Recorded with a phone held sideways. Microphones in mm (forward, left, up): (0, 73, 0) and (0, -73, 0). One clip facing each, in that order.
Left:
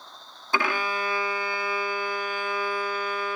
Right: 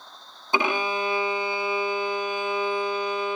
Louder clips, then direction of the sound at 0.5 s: Right 2 dB; 20° right (ahead or behind).